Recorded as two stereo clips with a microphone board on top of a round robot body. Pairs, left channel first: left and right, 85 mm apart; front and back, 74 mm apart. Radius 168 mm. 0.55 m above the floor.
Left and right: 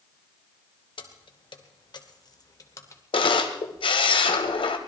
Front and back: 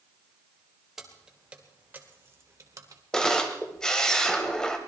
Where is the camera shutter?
80° left, 1.4 m.